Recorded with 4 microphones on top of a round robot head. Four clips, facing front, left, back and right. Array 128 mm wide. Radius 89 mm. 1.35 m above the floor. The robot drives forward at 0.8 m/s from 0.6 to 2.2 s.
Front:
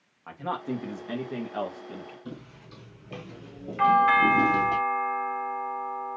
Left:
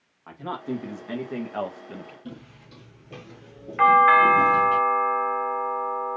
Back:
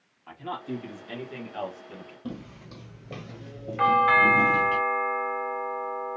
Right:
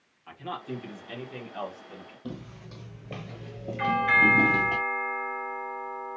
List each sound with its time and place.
0.3 s a man speaking: 40° left, 1.8 m; by 2.1 s 85° left, 1.1 m
2.2 s footsteps: 155° right, 2.0 m; by 4.8 s 50° right, 1.8 m
3.8 s a doorbell: 110° left, 1.0 m